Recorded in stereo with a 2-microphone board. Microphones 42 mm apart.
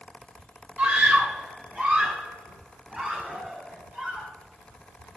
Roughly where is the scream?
Right.